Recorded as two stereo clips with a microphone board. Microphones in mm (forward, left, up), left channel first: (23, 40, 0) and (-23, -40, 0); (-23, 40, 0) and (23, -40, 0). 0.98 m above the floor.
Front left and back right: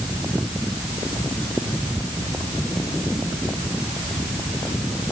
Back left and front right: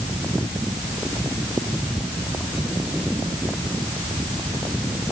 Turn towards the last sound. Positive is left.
No sound to turn to.